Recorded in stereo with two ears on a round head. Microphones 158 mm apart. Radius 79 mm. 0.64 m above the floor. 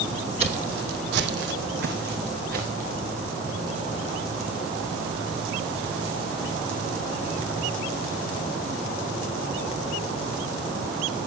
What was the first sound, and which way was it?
Footsteps, 35° right (ahead or behind).